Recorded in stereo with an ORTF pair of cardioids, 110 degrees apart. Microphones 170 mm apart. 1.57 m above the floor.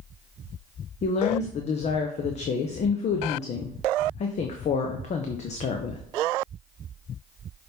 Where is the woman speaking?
45° left, 0.9 m.